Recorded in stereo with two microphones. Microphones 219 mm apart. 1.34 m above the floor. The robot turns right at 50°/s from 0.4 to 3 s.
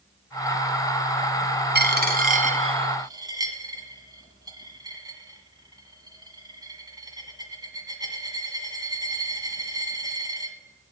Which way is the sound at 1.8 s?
50° right (ahead or behind).